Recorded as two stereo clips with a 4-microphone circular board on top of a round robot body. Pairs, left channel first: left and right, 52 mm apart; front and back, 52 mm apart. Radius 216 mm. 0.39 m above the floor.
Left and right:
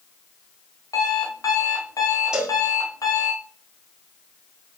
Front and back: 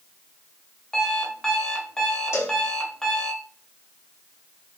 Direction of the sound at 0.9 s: 80° left.